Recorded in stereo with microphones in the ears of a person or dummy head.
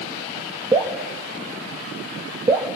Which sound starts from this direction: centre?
Dripping, at 0.7 s.